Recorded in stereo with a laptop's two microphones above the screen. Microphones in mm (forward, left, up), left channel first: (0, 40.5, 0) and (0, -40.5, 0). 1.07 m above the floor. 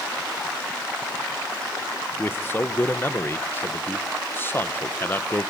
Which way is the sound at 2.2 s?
25° left (ahead or behind).